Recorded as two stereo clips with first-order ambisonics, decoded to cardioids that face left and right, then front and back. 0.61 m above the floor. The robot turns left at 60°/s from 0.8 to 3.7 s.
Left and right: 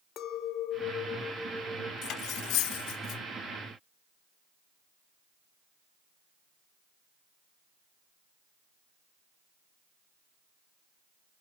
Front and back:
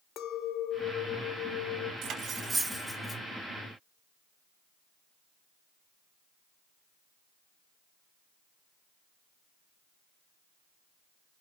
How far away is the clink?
About 1.2 m.